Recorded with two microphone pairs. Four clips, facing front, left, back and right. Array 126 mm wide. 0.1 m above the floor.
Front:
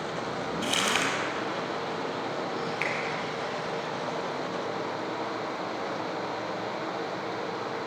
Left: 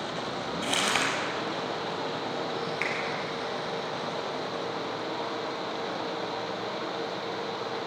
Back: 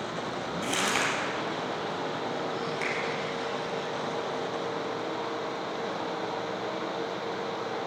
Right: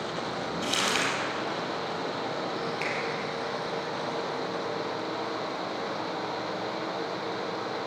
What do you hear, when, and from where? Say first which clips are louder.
0.6 s crumpling: left 1 dB, even; 85° left, 3 m
2.8 s a finger snap: even, front 1 dB; 65° left, 2.5 m